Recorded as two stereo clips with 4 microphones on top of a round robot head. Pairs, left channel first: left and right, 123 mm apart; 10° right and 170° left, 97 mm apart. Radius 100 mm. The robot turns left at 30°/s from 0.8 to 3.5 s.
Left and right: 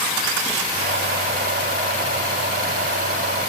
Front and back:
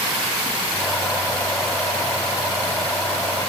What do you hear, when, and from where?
Only background noise.